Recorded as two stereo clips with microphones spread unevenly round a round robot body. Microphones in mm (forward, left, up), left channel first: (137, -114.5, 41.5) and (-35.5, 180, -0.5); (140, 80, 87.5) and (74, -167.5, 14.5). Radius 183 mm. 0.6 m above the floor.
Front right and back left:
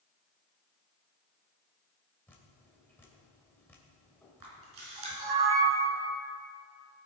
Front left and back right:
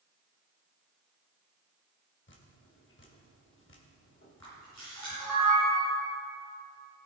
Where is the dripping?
25° left, 2 m.